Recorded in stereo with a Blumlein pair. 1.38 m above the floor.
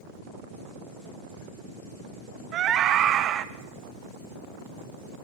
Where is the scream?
30° right, 1.2 m.